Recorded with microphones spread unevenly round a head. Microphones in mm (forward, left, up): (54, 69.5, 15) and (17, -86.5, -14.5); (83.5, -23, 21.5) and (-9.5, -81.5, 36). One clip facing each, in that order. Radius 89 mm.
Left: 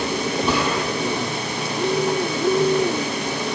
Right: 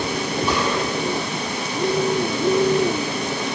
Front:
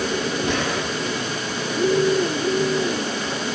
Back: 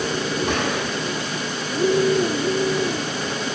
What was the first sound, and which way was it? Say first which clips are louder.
A gunshot: even, even; 160° left.